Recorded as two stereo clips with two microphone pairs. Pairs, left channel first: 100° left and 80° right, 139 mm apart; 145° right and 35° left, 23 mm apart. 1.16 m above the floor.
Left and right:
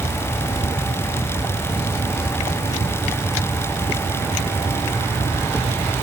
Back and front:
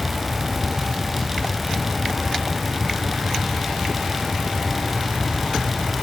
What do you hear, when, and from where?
Only background noise.